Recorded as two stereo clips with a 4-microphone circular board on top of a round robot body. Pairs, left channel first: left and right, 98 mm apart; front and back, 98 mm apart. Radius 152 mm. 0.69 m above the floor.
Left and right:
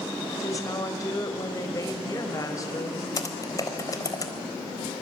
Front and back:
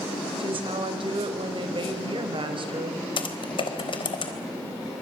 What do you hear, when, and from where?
0.4 s a woman speaking: 145° left, 4.5 m
3.2 s typing on a keyboard: 35° left, 4 m